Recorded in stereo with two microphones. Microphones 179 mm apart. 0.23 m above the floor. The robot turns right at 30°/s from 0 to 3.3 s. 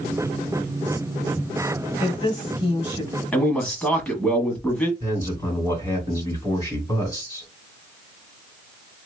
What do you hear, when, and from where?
2.0 s a woman speaking: 110° left, 1.6 m; by 3.2 s 145° left, 1.6 m
3.3 s a man speaking: 5° left (ahead or behind), 1.4 m
5.0 s a man speaking: 15° left (ahead or behind), 2.5 m